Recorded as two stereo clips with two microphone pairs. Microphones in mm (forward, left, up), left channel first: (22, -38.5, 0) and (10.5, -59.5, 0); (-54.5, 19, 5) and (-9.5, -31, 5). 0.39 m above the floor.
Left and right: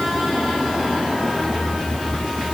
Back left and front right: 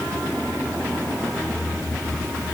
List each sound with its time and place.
Only background noise.